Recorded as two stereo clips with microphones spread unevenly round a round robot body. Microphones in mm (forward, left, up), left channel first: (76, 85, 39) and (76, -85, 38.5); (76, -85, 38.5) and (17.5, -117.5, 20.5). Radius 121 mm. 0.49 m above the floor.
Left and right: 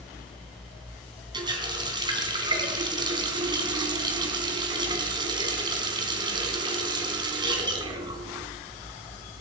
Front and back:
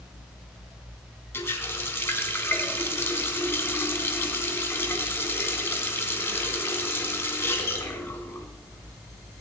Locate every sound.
1.3 s a running tap: 25° right, 3 m